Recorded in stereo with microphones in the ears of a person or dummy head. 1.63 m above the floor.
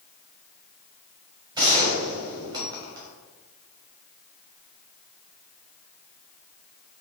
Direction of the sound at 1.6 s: 20° right (ahead or behind).